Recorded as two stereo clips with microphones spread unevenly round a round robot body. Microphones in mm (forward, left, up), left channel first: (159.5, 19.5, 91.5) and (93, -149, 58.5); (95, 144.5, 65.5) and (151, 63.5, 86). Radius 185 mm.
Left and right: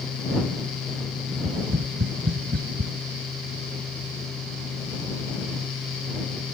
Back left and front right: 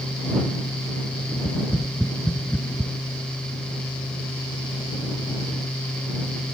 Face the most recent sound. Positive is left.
turn(degrees=-150)